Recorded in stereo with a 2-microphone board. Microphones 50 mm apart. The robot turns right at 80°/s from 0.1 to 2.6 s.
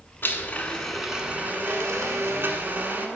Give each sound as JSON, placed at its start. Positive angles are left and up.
{"t": 0.2, "sound": "a blender", "azimuth_deg": 120, "distance_m": 0.9}